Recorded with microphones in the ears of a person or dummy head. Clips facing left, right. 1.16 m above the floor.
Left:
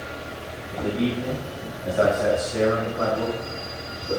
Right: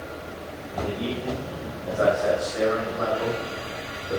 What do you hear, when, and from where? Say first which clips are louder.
0.7 s a man speaking: left 4 dB; 65° left (ahead or behind), 5 m; by 4.2 s 50° left (ahead or behind), 7 m